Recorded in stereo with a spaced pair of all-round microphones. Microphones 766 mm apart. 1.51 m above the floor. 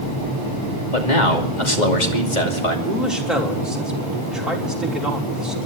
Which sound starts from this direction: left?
A man speaking, at 0.9 s.